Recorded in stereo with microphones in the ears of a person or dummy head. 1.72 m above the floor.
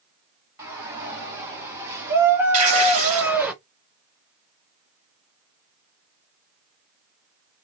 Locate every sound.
0.6 s a shout: 15° right (ahead or behind), 3.5 m; by 3.5 s 5° right (ahead or behind), 1.3 m
2.5 s tearing paper: 30° right (ahead or behind), 2 m